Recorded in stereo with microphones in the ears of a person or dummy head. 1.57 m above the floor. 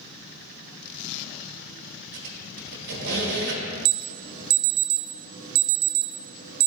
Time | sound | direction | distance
2.1 | a squeak | 60° right (ahead or behind) | 1.5 m
3.9 | an alarm | 40° right (ahead or behind) | 0.7 m